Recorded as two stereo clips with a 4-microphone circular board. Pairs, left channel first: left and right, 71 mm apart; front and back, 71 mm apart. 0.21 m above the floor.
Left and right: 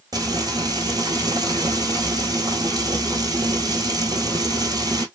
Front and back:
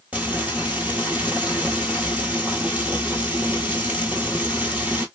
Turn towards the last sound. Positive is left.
turn(degrees=-110)